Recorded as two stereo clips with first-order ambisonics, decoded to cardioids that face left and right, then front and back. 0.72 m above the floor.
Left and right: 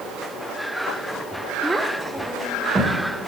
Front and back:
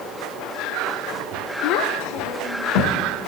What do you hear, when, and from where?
1.6 s a child speaking: 5° right, 0.9 m; by 3.0 s 15° right, 1.8 m